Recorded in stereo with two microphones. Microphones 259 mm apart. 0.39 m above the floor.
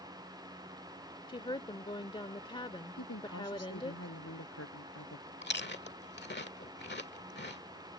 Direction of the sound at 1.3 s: 20° left (ahead or behind).